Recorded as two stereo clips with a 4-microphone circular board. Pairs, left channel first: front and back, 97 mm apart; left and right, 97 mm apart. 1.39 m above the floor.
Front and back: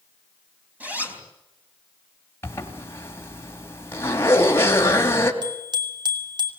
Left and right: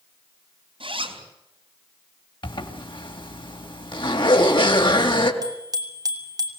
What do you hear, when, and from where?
0.8 s a zipper: 105° right, 4 m
2.4 s a zipper: 65° left, 3 m
5.4 s a bicycle bell: 135° right, 3 m